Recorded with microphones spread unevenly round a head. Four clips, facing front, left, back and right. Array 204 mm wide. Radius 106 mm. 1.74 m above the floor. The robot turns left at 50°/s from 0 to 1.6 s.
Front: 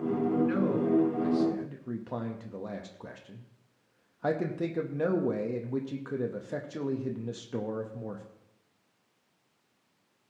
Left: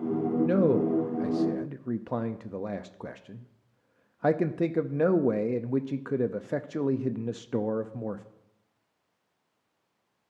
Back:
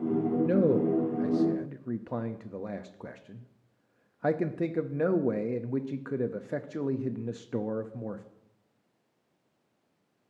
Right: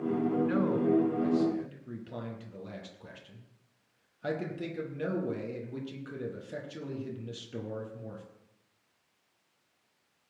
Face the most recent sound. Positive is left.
turn(degrees=70)